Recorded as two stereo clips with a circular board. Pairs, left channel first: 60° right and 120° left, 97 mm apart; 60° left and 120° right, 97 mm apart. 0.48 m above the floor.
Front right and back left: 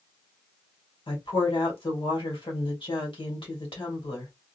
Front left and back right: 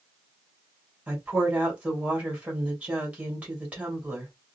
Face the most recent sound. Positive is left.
turn(degrees=-45)